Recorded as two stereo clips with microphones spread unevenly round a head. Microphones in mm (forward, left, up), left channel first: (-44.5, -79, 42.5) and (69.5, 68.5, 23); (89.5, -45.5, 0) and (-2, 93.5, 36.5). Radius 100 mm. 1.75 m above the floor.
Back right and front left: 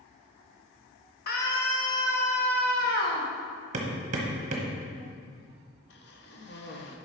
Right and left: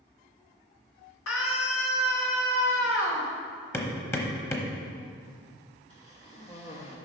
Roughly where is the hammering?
Ahead left.